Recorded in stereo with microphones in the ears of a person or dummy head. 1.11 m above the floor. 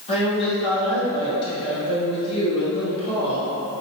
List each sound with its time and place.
0.1 s a woman speaking: 40° left (ahead or behind), 1.6 m